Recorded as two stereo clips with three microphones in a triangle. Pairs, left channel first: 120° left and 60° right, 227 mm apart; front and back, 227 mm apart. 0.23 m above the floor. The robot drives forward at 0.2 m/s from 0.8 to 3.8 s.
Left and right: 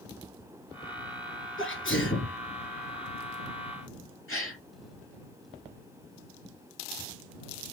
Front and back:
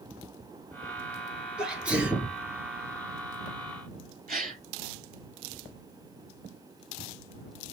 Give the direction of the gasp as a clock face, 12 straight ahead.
8 o'clock.